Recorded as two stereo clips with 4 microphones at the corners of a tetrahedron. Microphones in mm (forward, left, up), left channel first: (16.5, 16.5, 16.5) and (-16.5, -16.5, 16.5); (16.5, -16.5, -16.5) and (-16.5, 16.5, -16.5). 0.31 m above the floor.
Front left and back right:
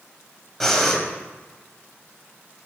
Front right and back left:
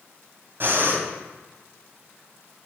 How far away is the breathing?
About 2 m.